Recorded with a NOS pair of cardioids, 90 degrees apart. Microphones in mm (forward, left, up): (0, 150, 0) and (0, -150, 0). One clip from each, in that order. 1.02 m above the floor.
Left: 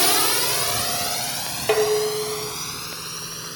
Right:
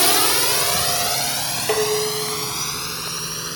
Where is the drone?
10° right; by 3.6 s 35° right.